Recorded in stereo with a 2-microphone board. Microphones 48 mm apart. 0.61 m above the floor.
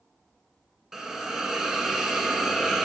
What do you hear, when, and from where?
0.9 s a hiss: 10° right (ahead or behind), 1.0 m